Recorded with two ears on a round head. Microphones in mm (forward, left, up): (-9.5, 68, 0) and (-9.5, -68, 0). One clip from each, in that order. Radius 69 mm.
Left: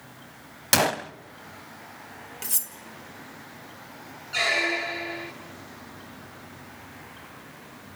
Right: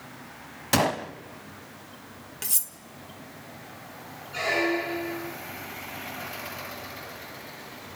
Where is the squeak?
70° left (ahead or behind), 1.6 m.